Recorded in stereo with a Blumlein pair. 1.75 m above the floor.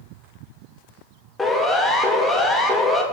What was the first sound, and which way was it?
A siren, 5° left.